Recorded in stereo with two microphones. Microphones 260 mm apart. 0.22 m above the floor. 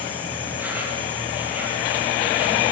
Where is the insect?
5° right (ahead or behind), 7 m.